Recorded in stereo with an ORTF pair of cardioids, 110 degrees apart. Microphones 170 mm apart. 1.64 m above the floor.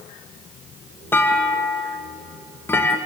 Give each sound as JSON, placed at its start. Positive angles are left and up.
{"t": 1.1, "sound": "a clunk", "azimuth_deg": 15, "distance_m": 2.5}